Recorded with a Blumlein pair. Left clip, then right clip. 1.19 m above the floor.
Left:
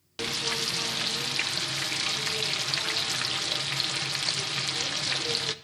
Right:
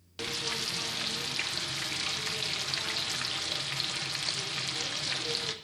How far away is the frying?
About 0.7 m.